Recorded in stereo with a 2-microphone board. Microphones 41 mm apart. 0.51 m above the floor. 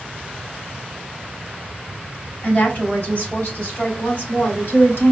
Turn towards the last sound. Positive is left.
turn(degrees=55)  # may be behind; listen again after turning